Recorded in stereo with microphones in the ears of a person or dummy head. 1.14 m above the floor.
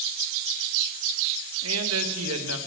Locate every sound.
1.6 s a man speaking: 80° right, 1.3 m